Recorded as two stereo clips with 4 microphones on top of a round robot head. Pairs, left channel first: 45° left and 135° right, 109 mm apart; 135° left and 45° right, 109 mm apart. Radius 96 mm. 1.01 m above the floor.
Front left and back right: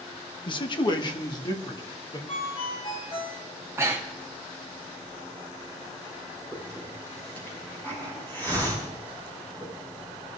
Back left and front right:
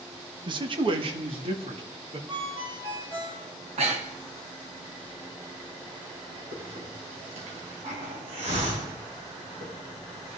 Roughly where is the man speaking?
Ahead.